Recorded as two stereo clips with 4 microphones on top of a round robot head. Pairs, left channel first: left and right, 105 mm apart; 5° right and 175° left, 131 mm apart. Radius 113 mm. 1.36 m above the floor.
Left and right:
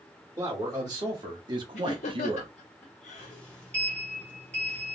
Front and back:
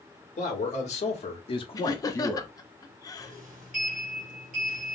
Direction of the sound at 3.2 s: 170° left.